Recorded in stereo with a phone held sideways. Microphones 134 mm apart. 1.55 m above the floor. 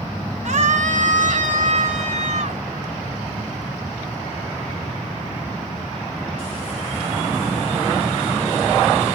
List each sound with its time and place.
0.5 s a scream: 60° right (ahead or behind); by 2.6 s 65° right (ahead or behind)